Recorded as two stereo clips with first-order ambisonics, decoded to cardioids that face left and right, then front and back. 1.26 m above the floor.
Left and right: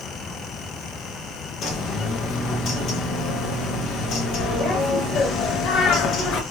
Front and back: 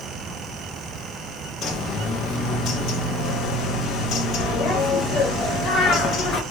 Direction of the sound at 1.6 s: 45° left.